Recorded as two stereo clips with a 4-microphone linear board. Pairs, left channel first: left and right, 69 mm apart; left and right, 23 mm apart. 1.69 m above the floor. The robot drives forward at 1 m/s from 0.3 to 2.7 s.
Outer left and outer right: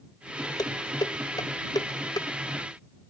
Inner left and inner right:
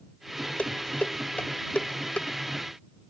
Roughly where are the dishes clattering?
Left.